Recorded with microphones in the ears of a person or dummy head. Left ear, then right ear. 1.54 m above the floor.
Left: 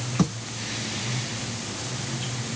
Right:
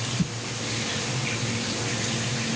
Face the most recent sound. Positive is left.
No sound to turn to.